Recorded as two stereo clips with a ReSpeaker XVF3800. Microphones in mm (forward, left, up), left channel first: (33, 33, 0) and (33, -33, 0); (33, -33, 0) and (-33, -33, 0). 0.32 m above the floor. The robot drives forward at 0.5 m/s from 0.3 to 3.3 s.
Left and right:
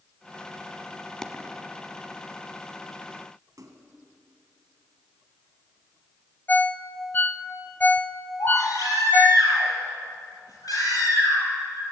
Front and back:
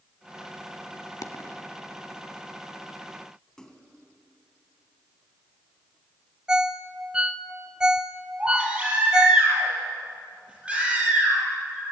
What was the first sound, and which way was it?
A dropped coin, 10° left.